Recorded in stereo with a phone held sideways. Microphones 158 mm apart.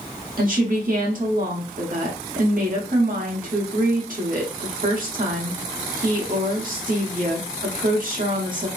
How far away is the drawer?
No drawer in this recording.